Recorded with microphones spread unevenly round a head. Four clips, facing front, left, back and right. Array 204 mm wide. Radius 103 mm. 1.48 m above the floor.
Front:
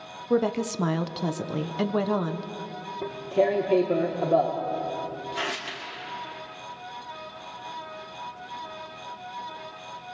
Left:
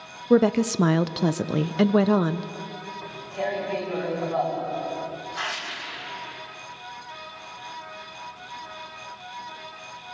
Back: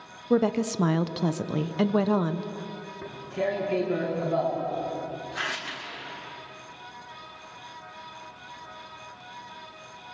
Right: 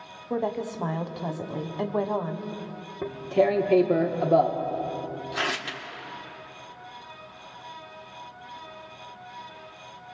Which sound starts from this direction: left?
A woman speaking, at 0.3 s.